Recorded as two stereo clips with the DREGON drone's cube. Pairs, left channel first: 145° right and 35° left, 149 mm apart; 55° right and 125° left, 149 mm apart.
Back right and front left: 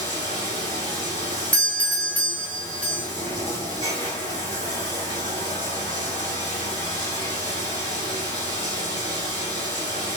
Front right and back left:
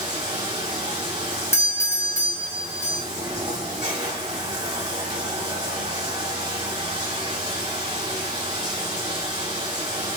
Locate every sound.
0.0 s running water: 170° left, 2.5 m
1.5 s a doorbell: 85° right, 1.1 m